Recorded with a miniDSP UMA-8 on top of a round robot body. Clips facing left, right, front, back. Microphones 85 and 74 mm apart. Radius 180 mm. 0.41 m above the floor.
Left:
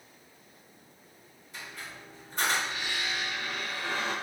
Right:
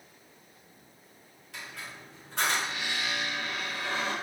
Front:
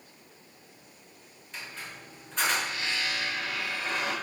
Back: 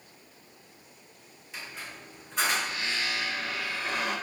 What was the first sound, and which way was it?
A squeak, 95° right.